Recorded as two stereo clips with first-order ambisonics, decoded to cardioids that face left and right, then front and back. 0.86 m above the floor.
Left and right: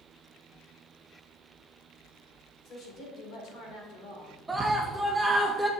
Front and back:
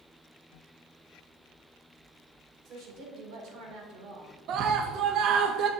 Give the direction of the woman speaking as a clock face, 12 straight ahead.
7 o'clock.